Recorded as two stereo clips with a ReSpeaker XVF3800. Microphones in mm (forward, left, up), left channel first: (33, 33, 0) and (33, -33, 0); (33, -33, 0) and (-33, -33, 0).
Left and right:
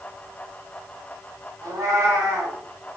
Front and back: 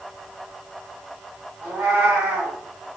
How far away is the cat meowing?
About 1.5 m.